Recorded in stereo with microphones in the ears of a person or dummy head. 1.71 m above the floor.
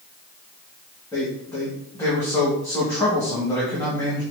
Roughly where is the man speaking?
Centre.